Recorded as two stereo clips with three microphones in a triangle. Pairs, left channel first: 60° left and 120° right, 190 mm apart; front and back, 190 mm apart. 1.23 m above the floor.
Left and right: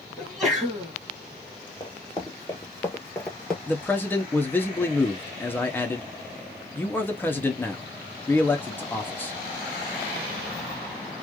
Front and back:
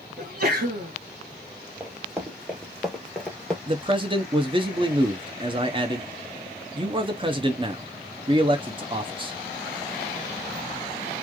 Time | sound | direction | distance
0.2 | a sneeze | 150° left | 1.2 m
1.8 | running footsteps | 105° left | 1.5 m
3.7 | a man speaking | 135° left | 0.7 m